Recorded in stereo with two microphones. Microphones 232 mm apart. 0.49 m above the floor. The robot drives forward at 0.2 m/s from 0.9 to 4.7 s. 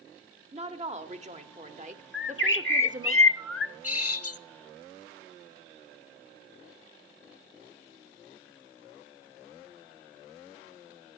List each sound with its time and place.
0.5 s a woman speaking: 30° right (ahead or behind), 1.4 m; by 3.1 s 35° right (ahead or behind), 1.2 m
2.1 s a bird: 50° left (ahead or behind), 0.7 m; by 4.4 s 85° left, 0.6 m